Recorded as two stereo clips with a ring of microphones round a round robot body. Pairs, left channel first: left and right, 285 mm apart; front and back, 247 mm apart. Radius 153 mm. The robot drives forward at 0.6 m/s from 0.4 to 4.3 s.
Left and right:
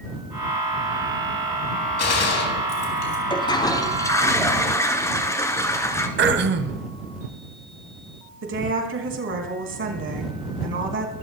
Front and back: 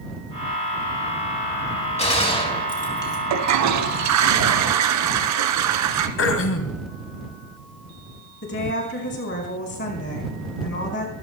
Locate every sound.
2.0 s a gunshot: 60° left, 3.5 m; by 3.2 s 75° left, 3.5 m
3.3 s a toilet flushing: 165° left, 0.8 m; by 6.1 s 170° left, 1.4 m
6.2 s throat clearing: 40° right, 1.3 m
8.4 s a woman speaking: 45° right, 3.5 m